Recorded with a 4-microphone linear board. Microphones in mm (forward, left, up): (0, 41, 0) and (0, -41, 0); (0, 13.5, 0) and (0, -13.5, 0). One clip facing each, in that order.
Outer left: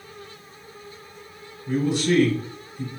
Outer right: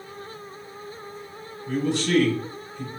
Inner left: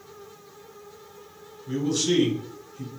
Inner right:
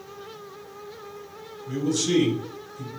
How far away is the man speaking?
About 1.3 m.